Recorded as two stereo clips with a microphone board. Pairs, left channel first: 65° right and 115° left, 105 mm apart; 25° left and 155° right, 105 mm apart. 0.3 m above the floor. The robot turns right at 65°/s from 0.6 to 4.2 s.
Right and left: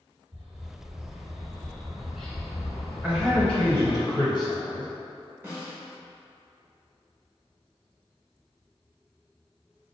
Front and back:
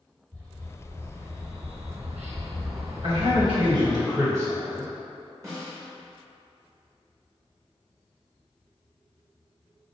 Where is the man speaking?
175° right, 1.5 m; by 4.9 s 100° right, 1.5 m.